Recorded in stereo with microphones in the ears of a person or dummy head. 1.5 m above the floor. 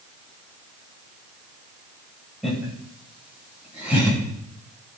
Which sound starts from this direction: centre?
Laughter, at 2.4 s.